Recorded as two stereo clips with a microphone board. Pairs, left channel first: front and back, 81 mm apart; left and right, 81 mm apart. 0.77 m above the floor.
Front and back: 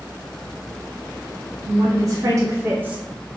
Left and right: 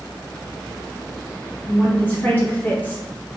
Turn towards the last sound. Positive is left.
turn(degrees=125)